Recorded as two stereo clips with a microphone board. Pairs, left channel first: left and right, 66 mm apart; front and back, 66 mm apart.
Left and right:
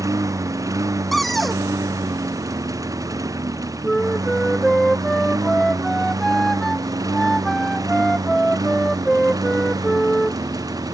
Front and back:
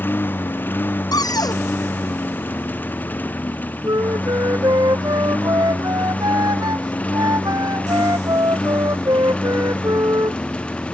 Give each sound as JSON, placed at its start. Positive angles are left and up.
{"t": 0.0, "sound": "a lawn mower", "azimuth_deg": -60}
{"t": 1.1, "sound": "a cupboard door", "azimuth_deg": 5}
{"t": 3.8, "sound": "a flute", "azimuth_deg": 175}